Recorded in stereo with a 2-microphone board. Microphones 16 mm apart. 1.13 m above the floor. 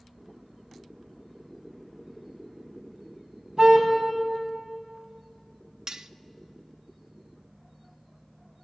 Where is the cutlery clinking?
45° right (ahead or behind), 0.6 m.